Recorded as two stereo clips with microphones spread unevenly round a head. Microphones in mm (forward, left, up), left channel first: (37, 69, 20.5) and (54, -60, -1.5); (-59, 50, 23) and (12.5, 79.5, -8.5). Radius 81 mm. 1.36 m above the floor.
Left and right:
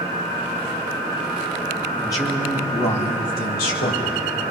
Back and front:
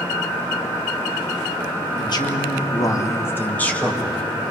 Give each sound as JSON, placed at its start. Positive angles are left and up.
{"t": 2.0, "sound": "a man speaking", "azimuth_deg": 175, "distance_m": 2.5}